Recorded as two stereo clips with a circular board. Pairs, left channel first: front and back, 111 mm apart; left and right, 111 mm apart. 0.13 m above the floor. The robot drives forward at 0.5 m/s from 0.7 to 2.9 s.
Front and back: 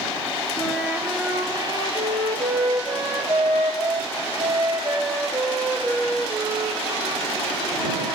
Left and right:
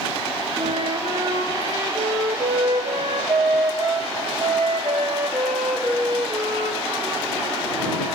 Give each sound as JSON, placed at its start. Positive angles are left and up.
{"t": 0.6, "sound": "a flute", "azimuth_deg": -85, "distance_m": 0.5}